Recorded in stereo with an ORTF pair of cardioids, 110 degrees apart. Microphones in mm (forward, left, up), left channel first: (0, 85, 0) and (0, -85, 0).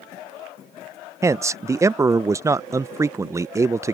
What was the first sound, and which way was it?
A man speaking, 20° right.